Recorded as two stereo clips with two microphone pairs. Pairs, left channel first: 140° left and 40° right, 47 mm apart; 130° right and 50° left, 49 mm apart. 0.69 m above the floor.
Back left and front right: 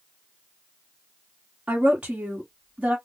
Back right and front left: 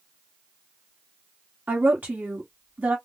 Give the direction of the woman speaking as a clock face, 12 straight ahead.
12 o'clock.